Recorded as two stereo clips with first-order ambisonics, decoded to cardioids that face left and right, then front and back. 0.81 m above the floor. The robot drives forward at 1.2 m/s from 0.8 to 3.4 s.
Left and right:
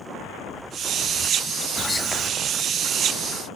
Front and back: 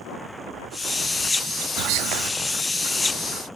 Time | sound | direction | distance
1.8 | whispering | 170° left | 0.8 m